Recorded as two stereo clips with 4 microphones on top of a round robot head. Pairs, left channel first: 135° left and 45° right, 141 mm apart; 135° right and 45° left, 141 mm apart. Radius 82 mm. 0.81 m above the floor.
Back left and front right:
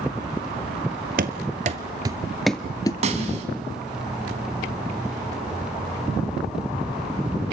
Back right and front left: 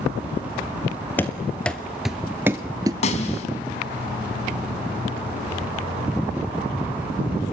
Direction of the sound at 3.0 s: 90° right.